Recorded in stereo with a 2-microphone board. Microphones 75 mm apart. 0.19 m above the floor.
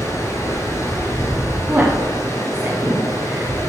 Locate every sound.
0.0 s running water: 40° left (ahead or behind), 2.5 m
1.7 s a woman speaking: 25° right (ahead or behind), 1.8 m